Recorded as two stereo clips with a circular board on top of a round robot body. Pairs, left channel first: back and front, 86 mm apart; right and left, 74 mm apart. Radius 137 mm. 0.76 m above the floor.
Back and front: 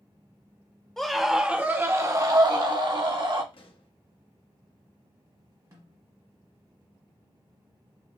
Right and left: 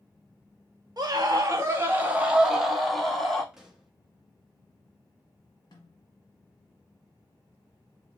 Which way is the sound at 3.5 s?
175° left.